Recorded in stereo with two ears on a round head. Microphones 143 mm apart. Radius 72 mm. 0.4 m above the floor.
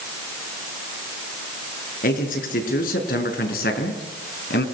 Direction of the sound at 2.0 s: 55° left (ahead or behind).